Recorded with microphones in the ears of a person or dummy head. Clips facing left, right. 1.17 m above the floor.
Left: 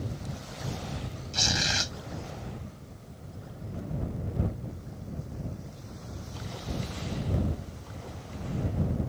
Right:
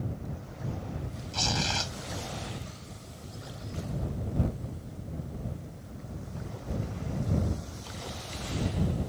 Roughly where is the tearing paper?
Left.